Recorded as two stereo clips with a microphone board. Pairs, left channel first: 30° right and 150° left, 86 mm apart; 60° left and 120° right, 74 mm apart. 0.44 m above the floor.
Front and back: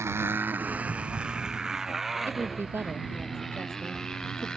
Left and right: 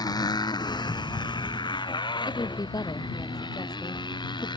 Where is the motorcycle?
90° left; by 4.6 s 50° left.